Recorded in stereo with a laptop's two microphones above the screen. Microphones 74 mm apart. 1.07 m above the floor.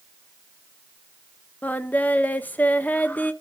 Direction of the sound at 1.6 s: 25° left (ahead or behind).